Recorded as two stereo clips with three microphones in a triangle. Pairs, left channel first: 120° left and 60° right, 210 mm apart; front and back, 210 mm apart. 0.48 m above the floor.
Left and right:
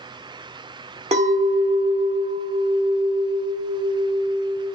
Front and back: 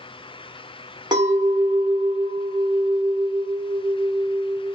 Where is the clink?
115° right, 0.7 m.